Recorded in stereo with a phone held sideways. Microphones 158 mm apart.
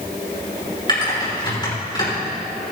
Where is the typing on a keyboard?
30° left (ahead or behind), 5 m.